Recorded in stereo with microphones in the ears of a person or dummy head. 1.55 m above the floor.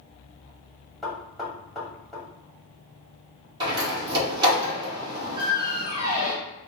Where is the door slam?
30° right (ahead or behind), 2 m.